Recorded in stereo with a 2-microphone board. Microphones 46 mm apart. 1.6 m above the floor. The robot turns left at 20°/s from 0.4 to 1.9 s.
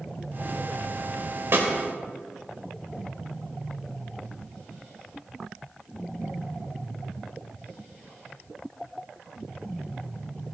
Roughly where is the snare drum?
Right.